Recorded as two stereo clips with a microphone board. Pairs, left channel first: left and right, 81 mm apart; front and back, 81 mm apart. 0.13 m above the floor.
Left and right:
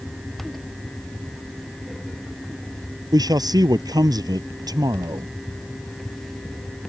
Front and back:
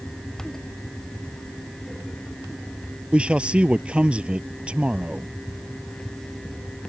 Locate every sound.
3.1 s a man speaking: 105° right